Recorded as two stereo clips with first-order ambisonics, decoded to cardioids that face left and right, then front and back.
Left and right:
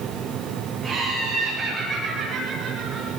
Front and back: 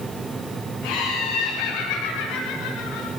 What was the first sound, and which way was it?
Laughter, straight ahead.